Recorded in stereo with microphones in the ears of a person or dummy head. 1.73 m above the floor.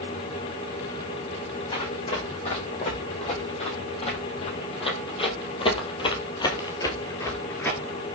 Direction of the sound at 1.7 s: 35° left (ahead or behind).